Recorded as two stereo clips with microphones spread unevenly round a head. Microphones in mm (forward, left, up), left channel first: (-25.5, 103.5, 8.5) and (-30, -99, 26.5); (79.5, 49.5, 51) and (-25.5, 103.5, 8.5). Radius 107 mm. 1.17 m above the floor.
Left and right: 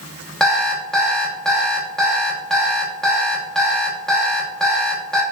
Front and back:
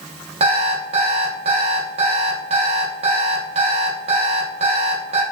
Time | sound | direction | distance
0.4 | an alarm clock | 175° right | 0.6 m